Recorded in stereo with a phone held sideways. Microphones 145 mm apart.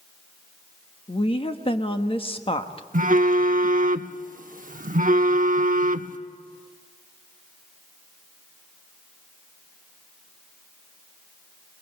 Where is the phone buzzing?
65° right (ahead or behind), 0.7 m.